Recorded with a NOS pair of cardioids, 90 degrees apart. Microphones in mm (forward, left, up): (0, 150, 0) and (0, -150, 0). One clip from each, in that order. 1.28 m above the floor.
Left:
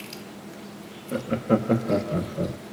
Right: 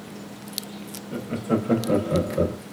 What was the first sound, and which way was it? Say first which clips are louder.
Laughter: left 3 dB; 40° left.